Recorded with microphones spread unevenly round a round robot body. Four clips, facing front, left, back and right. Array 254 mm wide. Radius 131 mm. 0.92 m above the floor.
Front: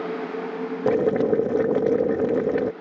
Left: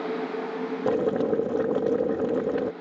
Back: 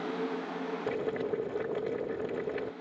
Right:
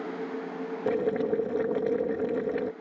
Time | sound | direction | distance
0.9 | boiling | 20° left | ?